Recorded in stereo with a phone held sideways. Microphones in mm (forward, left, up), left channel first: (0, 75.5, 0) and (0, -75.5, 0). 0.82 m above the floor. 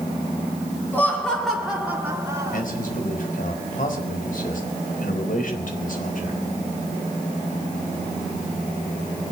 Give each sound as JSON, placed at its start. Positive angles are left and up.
{"t": 0.9, "sound": "laughter", "side_deg": 10, "distance_m": 2.5}
{"t": 2.5, "sound": "a man speaking", "side_deg": 65, "distance_m": 4.5}